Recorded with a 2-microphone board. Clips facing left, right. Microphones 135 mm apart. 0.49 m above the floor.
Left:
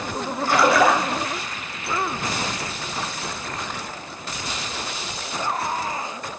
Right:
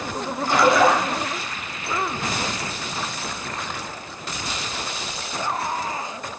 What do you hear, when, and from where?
0.5 s a splash: 20° right (ahead or behind), 2.5 m